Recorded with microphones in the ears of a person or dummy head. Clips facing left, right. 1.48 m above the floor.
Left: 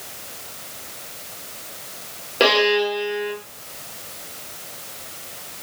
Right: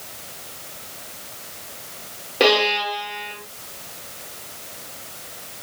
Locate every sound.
2.4 s a violin: centre (ahead or behind), 0.8 m